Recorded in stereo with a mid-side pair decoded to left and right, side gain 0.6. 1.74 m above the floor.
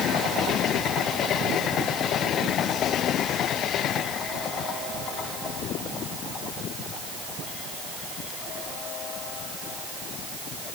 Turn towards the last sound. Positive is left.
No sound to turn to.